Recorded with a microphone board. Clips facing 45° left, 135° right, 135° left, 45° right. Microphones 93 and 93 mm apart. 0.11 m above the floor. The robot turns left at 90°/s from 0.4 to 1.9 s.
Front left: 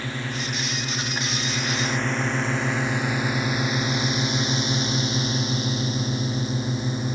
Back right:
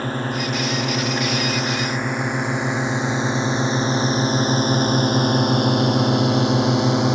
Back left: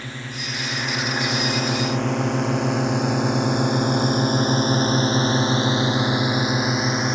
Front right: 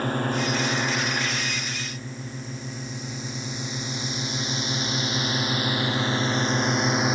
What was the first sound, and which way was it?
A drone, 90° right.